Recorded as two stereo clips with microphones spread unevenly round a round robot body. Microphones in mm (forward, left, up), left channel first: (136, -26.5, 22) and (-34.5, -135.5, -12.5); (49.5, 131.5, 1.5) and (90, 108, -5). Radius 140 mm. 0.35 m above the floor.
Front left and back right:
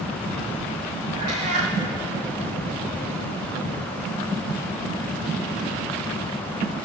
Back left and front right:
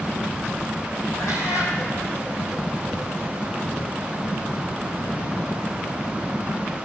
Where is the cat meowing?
175° left, 2.5 m.